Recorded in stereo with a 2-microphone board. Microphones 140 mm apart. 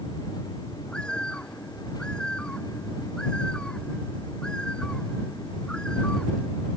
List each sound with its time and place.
0.9 s a bird: 5° left (ahead or behind)